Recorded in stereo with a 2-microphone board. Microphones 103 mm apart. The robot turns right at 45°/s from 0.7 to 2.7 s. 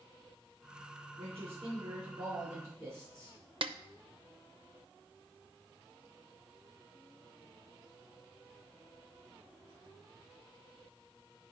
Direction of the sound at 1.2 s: 100° right.